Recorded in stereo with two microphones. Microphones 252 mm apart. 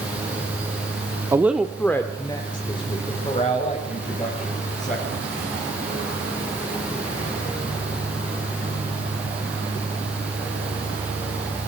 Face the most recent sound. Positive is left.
turn(degrees=30)  # may be behind; listen again after turning